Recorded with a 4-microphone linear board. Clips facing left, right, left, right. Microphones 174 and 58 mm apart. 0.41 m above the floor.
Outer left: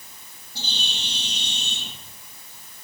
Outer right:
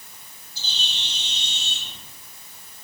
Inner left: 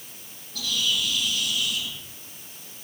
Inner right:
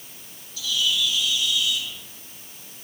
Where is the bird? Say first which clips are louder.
Outer left 3 dB, inner right 2 dB; 75° left (ahead or behind), 9 m.